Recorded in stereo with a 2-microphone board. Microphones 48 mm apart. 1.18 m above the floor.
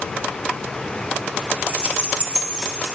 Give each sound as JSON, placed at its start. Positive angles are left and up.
{"t": 1.7, "sound": "keys jangling", "side_deg": -35, "distance_m": 2.5}